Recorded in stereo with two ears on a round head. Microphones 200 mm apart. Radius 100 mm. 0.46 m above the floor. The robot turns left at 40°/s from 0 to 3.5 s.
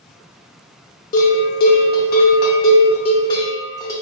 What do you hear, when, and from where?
1.1 s a bell: 115° left, 0.9 m; by 3.9 s 20° left, 0.9 m